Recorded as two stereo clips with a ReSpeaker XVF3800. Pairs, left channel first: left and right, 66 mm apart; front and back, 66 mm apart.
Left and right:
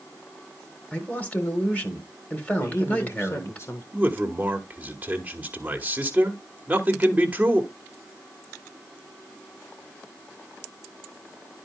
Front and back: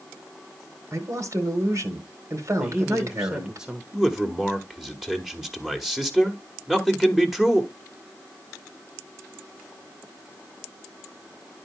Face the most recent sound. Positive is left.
turn(degrees=-100)